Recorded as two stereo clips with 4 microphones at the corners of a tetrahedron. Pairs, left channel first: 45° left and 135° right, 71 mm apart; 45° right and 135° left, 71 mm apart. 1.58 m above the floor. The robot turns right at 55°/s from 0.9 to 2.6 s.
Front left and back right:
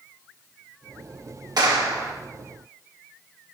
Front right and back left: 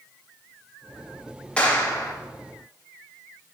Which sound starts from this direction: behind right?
A clap, at 1.6 s.